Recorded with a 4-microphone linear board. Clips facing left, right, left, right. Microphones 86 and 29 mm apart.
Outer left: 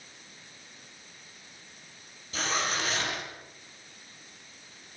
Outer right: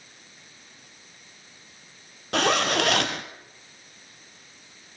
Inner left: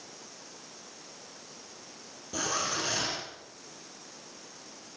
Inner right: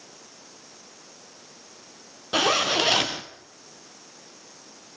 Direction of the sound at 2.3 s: 70° right (ahead or behind).